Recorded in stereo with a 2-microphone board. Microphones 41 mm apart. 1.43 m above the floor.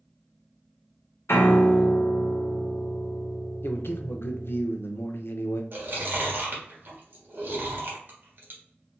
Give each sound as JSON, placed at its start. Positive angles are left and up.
{"t": 1.3, "sound": "a piano", "side_deg": 80, "distance_m": 0.8}
{"t": 3.6, "sound": "a man speaking", "side_deg": 65, "distance_m": 0.6}
{"t": 5.7, "sound": "chewing", "side_deg": -55, "distance_m": 1.2}